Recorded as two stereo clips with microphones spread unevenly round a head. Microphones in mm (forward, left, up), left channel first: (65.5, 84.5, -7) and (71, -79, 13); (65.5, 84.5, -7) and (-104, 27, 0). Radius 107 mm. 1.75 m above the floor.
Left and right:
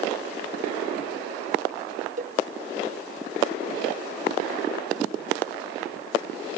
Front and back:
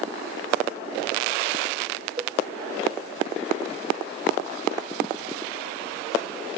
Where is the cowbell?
95° right.